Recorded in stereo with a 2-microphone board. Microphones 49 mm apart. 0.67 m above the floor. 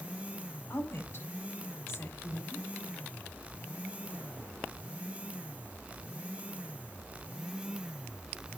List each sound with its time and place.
0.7 s a woman speaking: 40° left (ahead or behind), 2 m